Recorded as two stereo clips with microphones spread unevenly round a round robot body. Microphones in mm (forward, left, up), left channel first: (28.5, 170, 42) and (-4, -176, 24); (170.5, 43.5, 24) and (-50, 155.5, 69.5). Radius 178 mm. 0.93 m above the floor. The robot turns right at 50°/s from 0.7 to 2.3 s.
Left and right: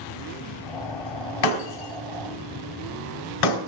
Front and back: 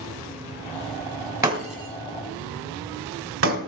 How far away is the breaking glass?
About 2.5 m.